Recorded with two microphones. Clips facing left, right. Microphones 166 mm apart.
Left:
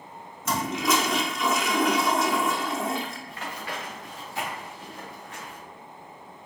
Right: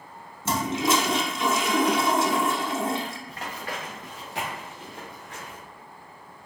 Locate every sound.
0.5 s a toilet flushing: 30° right (ahead or behind), 0.5 m
3.3 s running footsteps: 40° right (ahead or behind), 1.7 m; by 5.6 s 75° right (ahead or behind), 2.0 m